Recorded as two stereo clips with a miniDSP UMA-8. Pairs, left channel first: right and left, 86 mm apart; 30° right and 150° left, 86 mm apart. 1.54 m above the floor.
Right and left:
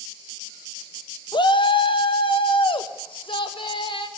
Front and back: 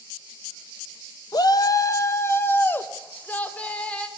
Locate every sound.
1.3 s a shout: 65° right, 0.9 m; by 4.1 s 105° right, 2 m